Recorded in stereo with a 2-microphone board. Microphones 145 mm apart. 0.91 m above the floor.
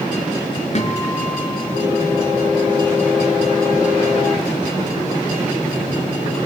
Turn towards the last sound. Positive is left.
turn(degrees=50)  # may be behind; listen again after turning